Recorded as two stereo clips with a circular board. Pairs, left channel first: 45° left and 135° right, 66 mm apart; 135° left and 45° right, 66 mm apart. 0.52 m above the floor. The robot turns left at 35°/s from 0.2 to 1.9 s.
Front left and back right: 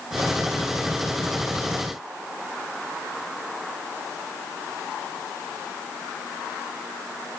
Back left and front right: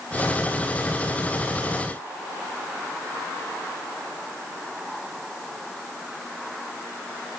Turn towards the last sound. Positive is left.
No sound to turn to.